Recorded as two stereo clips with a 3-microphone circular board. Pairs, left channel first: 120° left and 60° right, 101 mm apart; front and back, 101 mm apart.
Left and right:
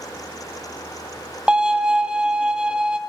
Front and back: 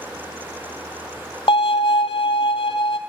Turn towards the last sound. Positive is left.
turn(degrees=20)